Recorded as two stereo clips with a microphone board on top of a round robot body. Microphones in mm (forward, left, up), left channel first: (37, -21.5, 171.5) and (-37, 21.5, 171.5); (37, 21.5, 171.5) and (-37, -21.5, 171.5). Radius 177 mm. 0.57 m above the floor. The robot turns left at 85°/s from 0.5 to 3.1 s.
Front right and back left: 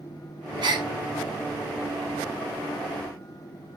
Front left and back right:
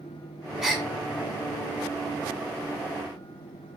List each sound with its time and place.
0.6 s a gasp: 125° left, 0.7 m; by 0.9 s 100° left, 0.7 m